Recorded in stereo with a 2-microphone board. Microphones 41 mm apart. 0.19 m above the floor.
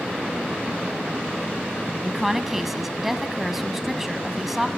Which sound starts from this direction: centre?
A woman speaking, at 2.0 s.